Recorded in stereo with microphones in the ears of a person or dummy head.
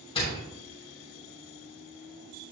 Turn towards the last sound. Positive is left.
turn(degrees=30)  # may be behind; listen again after turning